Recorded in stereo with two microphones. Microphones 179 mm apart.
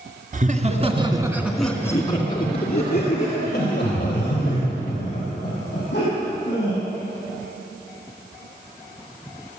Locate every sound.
0.3 s laughter: 45° right (ahead or behind), 2.0 m; by 6.8 s 55° left (ahead or behind), 7 m